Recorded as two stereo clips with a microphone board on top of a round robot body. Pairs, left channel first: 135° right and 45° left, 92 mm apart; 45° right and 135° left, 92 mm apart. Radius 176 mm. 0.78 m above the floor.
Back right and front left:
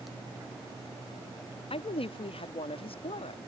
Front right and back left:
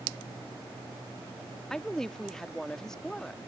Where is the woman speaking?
130° right.